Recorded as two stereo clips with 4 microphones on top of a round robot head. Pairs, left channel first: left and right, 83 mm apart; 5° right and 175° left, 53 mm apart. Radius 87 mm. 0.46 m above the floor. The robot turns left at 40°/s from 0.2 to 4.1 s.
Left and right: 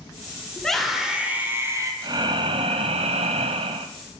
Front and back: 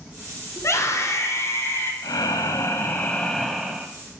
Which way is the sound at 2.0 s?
35° right.